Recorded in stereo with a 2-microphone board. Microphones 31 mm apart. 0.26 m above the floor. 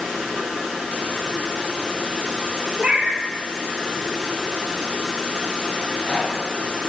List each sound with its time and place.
2.8 s a cat meowing: 30° right (ahead or behind), 2 m
5.8 s a rattle: 35° left (ahead or behind), 4 m